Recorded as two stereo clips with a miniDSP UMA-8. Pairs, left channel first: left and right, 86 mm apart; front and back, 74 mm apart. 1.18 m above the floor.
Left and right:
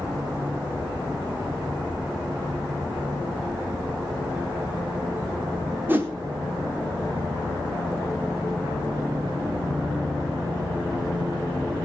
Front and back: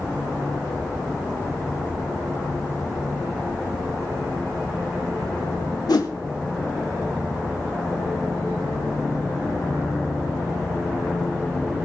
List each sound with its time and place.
5.9 s a whoosh: 25° right, 2 m